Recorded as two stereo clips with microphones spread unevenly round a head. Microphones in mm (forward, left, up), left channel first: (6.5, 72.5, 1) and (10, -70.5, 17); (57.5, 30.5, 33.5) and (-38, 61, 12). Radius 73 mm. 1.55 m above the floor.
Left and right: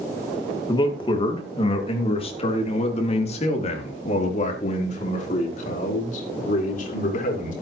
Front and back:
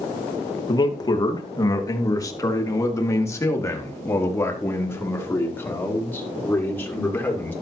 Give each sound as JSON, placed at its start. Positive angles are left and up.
{"t": 0.7, "sound": "a man speaking", "azimuth_deg": 30, "distance_m": 3.0}